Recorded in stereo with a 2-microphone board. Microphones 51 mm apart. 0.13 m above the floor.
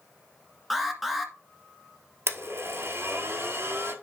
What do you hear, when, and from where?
0.7 s an alarm: centre (ahead or behind), 1.6 m
2.3 s a blender: 65° right (ahead or behind), 1.3 m